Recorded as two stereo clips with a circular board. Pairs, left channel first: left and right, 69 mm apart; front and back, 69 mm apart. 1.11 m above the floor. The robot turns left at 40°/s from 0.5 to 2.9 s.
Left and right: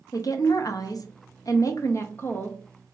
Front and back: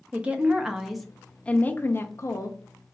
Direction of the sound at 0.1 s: 110° left.